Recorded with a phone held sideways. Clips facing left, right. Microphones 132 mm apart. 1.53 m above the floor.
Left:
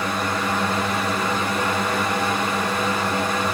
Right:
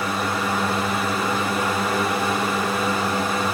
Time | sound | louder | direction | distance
0.0 | a fan | even | 5° right (ahead or behind) | 0.8 m